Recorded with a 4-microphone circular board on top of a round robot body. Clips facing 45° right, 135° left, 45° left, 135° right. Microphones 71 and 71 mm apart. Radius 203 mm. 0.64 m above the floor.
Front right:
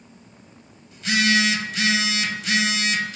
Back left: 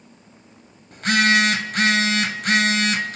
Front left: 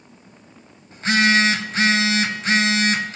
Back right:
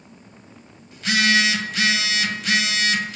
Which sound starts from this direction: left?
A phone buzzing, at 0.9 s.